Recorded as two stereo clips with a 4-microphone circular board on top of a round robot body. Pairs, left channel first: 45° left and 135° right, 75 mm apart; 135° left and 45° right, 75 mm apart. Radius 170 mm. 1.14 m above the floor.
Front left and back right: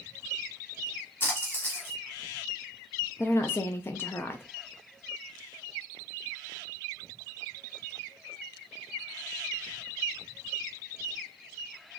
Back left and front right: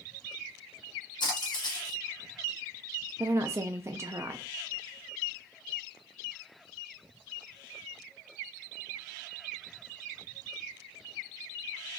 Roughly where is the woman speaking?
Ahead.